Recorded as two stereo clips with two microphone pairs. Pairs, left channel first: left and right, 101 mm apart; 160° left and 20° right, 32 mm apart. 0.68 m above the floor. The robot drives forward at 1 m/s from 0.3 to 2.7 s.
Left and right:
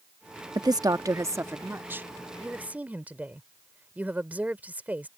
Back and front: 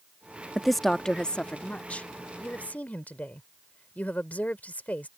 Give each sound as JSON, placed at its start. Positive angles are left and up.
{"t": 0.6, "sound": "a woman speaking", "azimuth_deg": -95}